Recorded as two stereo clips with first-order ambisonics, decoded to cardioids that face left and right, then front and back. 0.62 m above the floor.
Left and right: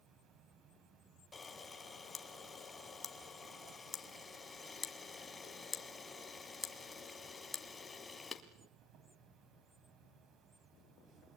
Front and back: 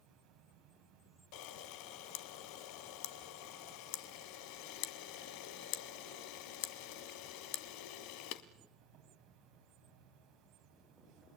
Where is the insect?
135° right, 6 m.